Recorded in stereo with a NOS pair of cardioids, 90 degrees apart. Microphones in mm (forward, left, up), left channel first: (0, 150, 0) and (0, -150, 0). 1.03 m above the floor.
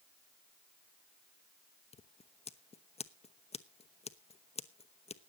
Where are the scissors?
20° left, 0.9 m.